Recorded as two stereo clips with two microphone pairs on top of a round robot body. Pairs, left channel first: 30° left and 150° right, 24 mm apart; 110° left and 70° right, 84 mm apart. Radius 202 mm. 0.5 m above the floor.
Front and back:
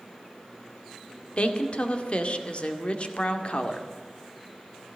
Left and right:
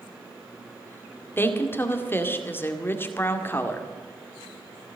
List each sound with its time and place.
1.4 s a woman speaking: 50° left, 2 m